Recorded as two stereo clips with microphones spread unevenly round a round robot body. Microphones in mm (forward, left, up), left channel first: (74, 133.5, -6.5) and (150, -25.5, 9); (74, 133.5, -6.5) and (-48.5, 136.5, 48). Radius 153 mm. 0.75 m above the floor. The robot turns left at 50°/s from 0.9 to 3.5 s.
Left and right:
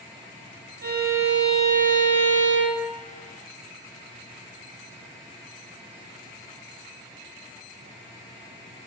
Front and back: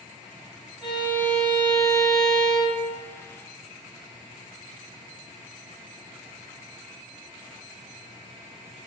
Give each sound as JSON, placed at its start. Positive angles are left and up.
{"t": 0.8, "sound": "a violin", "azimuth_deg": -40, "distance_m": 1.2}